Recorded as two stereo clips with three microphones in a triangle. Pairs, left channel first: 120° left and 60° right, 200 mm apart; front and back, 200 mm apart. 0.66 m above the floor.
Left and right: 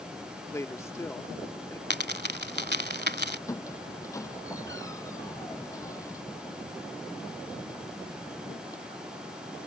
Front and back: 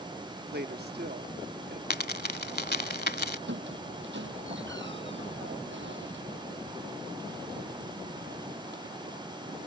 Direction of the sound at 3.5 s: 165° right.